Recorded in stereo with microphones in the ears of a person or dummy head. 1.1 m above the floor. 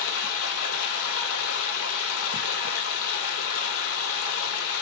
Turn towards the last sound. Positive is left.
turn(degrees=65)  # may be behind; listen again after turning